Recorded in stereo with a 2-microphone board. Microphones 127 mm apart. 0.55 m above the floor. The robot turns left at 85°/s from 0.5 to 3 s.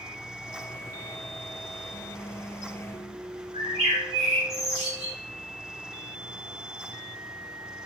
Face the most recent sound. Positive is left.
turn(degrees=-55)  # may be behind; listen again after turning